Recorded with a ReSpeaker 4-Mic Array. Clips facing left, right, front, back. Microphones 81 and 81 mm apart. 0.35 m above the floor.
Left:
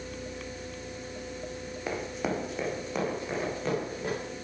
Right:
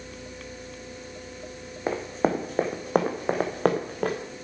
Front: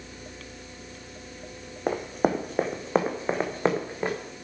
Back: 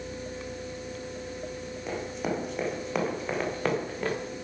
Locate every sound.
1.9 s running footsteps: 30° right, 1.4 m; by 4.2 s 70° right, 2 m